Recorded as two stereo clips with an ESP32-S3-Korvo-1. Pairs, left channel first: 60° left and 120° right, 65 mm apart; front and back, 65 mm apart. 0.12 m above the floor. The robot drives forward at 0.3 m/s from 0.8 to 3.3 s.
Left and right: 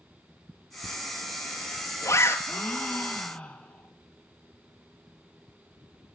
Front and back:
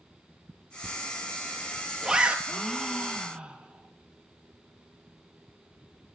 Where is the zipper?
60° left, 0.6 m; by 2.4 s 110° left, 0.6 m.